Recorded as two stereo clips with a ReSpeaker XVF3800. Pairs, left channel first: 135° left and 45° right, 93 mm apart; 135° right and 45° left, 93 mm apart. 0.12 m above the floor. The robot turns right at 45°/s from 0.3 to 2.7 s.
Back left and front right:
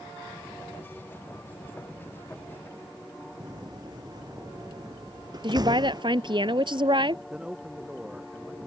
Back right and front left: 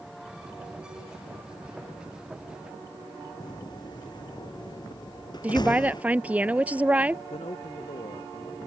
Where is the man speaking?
125° right.